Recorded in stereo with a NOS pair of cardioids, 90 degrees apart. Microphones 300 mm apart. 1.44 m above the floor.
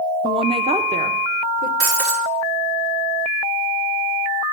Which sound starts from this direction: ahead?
A woman speaking, at 0.2 s.